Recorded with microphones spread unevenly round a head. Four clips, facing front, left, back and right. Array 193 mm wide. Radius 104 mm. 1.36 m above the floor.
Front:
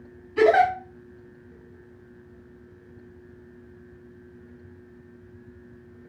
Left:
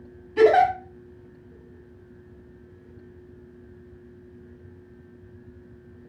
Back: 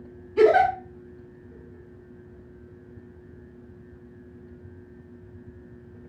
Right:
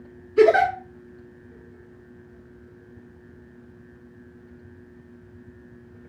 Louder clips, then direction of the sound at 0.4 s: Even, back 1 dB; 110° left.